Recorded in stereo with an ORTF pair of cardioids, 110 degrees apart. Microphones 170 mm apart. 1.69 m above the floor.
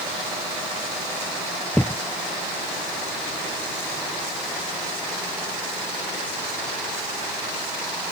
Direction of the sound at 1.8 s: 5° left.